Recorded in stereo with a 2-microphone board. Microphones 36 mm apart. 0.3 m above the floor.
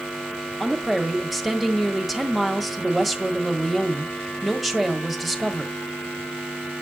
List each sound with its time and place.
0.6 s a woman speaking: centre (ahead or behind), 1.5 m